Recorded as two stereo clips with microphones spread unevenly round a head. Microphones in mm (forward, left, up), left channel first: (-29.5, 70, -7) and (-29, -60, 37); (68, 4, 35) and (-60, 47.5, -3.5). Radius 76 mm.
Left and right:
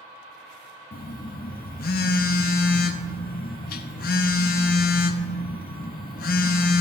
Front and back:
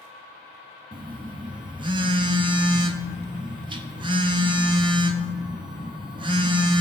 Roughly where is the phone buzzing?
Left.